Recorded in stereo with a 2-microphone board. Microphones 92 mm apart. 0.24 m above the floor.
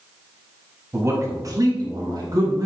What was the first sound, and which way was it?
A man speaking, 30° right (ahead or behind).